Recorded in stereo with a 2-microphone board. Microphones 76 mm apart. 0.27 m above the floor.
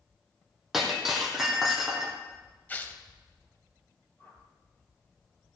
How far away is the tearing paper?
About 1.1 m.